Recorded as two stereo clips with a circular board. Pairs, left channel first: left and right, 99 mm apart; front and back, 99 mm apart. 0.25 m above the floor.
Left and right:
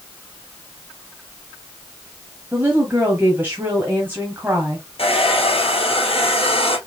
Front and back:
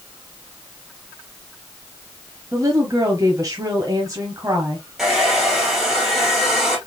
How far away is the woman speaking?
About 1.2 m.